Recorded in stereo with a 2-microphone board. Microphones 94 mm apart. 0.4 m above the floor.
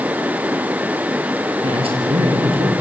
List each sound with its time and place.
1.6 s a man speaking: 85° right, 7 m